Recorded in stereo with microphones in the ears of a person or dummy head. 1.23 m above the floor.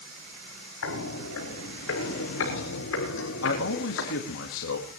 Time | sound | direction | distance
0.8 | footsteps | 70° left (ahead or behind) | 5.5 m
3.4 | a man speaking | 70° left (ahead or behind) | 2 m